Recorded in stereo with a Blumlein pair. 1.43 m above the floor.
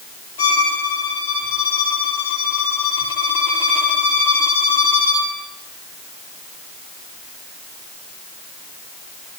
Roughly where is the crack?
I don't hear a crack.